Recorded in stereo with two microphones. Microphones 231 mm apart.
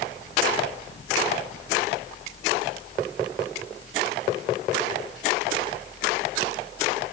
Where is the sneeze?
No sneeze in this recording.